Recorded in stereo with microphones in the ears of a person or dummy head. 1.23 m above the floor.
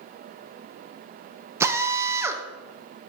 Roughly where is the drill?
Centre.